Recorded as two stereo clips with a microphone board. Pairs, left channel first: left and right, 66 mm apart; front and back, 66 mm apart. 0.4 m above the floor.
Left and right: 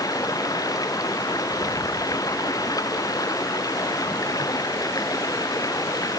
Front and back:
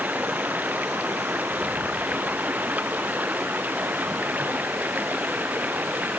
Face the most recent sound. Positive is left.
turn(degrees=115)